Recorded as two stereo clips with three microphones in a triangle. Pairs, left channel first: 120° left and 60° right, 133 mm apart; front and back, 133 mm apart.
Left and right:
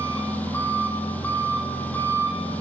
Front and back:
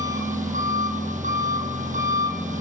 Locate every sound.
0.0 s an engine running: 165° right, 6 m